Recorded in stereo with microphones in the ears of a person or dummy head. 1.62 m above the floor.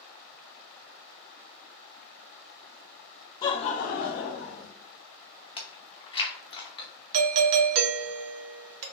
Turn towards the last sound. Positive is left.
turn(degrees=-65)  # may be behind; listen again after turning